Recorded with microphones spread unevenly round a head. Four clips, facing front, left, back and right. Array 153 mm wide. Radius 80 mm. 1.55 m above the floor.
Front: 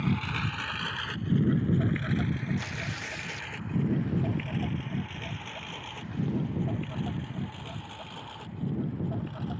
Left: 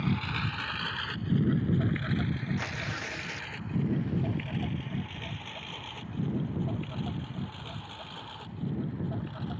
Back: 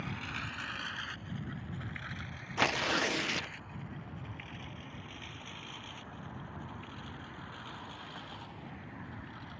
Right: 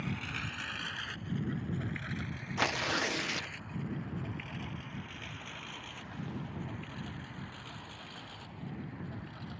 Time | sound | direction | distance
0.0 | a lawn mower | 35° left | ?
2.6 | tearing paper | 140° right | ?